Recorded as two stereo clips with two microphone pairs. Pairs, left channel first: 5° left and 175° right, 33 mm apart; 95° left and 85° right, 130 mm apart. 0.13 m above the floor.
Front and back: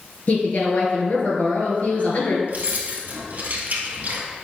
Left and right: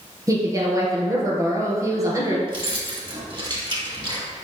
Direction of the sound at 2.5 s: 135° right.